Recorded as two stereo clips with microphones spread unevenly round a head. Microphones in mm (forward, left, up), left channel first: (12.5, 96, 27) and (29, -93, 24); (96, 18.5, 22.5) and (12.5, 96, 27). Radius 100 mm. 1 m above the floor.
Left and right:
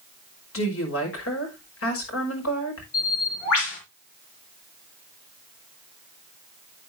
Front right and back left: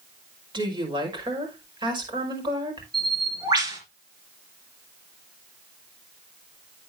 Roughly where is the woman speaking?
Left.